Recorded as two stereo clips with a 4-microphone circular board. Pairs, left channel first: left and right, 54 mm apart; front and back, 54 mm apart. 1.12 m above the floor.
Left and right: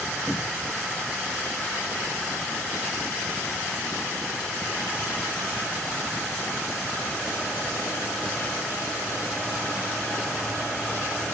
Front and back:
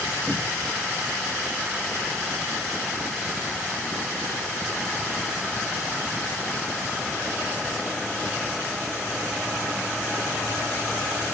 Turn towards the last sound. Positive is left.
turn(degrees=170)